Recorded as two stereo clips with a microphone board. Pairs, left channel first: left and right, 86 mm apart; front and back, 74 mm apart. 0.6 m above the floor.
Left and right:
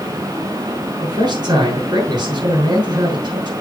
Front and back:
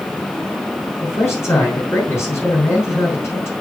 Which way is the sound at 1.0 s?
55° right.